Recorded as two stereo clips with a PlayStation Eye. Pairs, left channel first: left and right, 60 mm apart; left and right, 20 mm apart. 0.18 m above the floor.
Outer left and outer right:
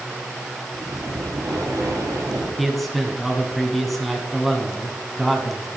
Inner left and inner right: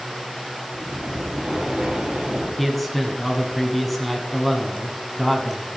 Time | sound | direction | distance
0.7 | breathing | 75° right (ahead or behind) | 5 m
2.6 | a man speaking | centre (ahead or behind) | 1.5 m